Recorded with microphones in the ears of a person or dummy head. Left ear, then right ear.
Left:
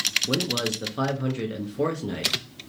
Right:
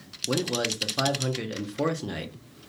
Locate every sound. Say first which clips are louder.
0.3 s a man speaking: left 2 dB; 15° right (ahead or behind), 0.6 m